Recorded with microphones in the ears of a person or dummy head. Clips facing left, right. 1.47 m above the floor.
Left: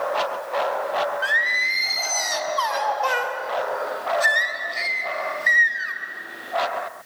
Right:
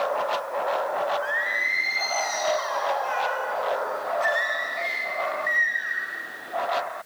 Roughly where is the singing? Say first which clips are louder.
Even; left.